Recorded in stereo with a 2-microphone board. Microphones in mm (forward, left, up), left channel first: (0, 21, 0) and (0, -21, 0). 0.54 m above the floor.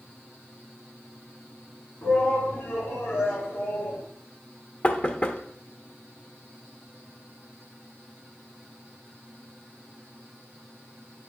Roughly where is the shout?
Left.